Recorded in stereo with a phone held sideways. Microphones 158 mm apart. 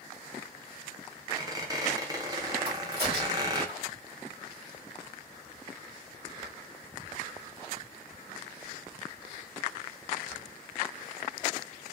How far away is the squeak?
About 0.6 m.